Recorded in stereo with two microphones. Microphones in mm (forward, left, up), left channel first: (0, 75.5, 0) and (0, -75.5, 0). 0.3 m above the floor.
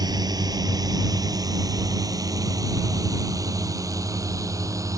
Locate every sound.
0.0 s a drone: 25° right (ahead or behind); by 5.0 s 20° right (ahead or behind)